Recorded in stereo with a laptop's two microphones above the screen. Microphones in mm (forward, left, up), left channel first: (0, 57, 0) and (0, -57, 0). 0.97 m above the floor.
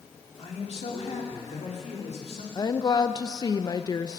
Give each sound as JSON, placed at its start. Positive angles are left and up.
{"t": 0.4, "sound": "a man speaking", "side_deg": 60, "distance_m": 2.5}
{"t": 2.5, "sound": "a woman speaking", "side_deg": 35, "distance_m": 0.6}